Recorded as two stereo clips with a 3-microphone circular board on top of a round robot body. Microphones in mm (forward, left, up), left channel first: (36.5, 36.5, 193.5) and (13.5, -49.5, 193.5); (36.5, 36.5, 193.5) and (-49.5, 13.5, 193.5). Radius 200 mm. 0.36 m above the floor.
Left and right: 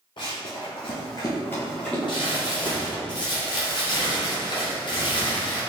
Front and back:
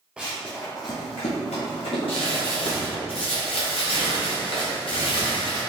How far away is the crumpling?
About 1.0 m.